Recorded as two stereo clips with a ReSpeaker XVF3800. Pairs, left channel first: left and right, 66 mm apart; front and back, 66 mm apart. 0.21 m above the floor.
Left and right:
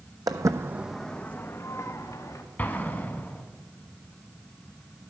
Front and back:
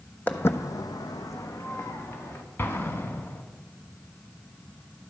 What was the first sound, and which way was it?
Footsteps, 65° right.